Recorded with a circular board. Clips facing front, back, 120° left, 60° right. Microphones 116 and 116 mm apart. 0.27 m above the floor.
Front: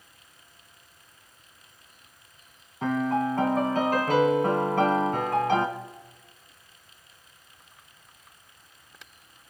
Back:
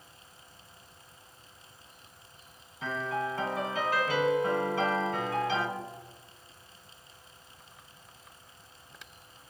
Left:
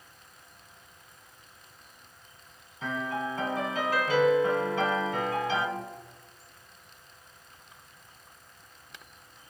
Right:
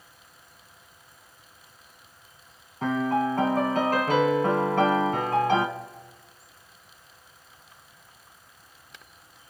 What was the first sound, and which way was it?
A piano, 30° right.